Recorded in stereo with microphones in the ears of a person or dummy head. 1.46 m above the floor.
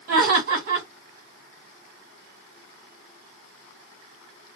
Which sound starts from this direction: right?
Laughter, at 0.1 s.